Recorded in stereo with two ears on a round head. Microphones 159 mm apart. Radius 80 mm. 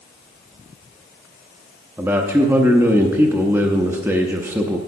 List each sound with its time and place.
2.0 s a man speaking: 15° right (ahead or behind), 0.7 m